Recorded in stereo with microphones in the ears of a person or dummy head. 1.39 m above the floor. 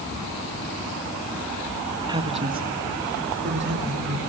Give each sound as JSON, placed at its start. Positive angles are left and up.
{"t": 2.1, "sound": "a woman speaking", "side_deg": -20, "distance_m": 1.4}